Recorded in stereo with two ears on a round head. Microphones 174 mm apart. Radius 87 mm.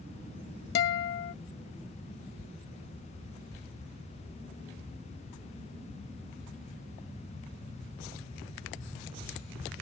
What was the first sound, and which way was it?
A guitar, 50° left (ahead or behind).